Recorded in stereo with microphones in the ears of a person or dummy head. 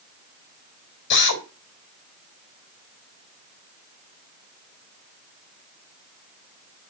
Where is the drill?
70° left (ahead or behind), 4.5 m.